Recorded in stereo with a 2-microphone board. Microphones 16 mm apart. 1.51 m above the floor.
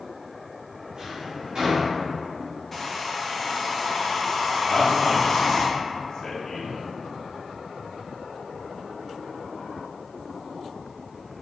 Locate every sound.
0.9 s a drawer: 55° right (ahead or behind), 2.0 m
2.7 s a hair dryer: 10° left (ahead or behind), 0.8 m
4.7 s a man speaking: 45° left (ahead or behind), 0.8 m